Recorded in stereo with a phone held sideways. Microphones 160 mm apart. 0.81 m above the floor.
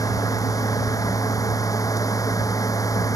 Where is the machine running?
20° left (ahead or behind).